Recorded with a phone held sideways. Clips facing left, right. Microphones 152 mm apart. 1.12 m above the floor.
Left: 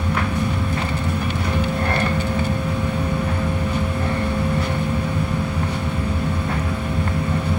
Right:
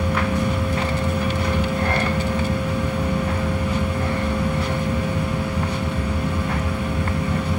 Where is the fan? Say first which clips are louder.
Right 1 dB; 10° right (ahead or behind), 0.9 m.